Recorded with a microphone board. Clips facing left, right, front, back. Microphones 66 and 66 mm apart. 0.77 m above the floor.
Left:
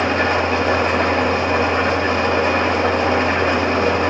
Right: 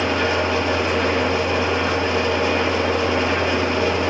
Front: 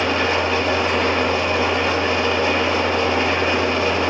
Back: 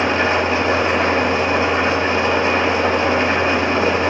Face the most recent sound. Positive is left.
turn(degrees=125)